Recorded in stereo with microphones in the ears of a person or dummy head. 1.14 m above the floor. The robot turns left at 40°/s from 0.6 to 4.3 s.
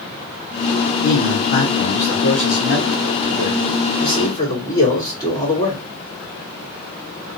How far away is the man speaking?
About 3 m.